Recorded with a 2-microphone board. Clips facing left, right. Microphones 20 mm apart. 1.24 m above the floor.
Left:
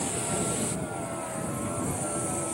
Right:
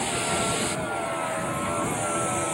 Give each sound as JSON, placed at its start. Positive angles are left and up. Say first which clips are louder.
{"t": 0.0, "sound": "a vehicle", "louder": "right 5 dB", "side_deg": -40}